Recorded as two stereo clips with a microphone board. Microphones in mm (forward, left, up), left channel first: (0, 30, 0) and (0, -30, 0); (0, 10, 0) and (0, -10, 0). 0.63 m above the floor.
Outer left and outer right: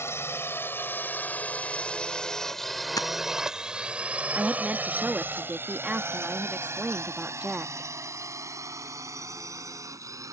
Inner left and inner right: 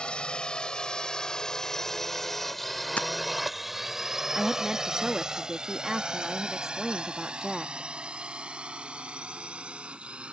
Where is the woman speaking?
20° right (ahead or behind).